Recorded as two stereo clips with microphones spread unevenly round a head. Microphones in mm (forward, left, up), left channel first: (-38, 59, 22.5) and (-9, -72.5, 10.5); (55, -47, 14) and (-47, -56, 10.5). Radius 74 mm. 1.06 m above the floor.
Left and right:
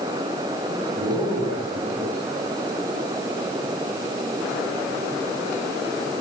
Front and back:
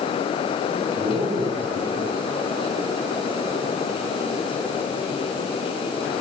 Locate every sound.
0.7 s a man speaking: 145° right, 9.5 m